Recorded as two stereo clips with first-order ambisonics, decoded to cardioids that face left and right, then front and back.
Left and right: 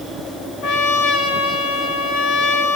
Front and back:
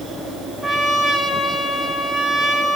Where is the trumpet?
90° left, 3.5 m.